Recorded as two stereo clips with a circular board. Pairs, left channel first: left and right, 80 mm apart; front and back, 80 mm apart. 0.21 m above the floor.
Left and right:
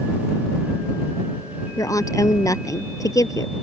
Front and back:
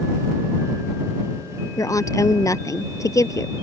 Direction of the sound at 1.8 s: 45° left.